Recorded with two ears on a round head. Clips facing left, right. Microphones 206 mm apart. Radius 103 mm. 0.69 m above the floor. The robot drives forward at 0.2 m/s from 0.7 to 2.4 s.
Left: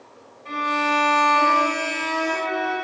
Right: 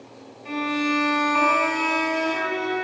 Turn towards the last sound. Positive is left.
turn(degrees=-65)  # may be behind; listen again after turning